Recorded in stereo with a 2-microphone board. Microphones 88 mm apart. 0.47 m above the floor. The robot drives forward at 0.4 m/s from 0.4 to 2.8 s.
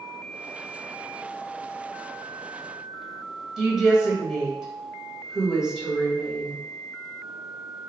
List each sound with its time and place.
3.6 s a woman speaking: 5° right (ahead or behind), 1.7 m